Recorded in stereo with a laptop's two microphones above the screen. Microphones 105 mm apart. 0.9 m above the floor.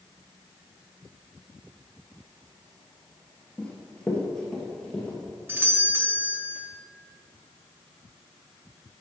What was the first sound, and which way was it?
Running footsteps, 15° left (ahead or behind).